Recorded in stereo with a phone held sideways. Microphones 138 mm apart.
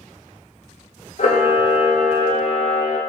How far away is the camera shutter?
About 0.6 m.